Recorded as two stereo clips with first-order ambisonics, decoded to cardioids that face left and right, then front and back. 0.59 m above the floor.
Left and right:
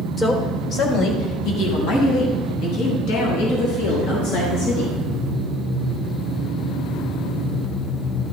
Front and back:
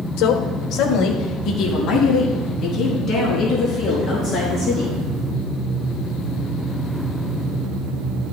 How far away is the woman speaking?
About 1.5 m.